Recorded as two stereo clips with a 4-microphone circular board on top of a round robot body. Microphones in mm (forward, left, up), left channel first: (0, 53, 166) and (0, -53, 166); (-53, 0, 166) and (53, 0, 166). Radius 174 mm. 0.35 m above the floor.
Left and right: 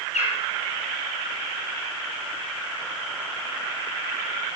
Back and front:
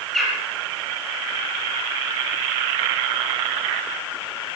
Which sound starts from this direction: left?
A bird, at 0.1 s.